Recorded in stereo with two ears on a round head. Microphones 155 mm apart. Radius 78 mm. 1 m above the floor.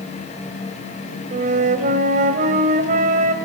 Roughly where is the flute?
Right.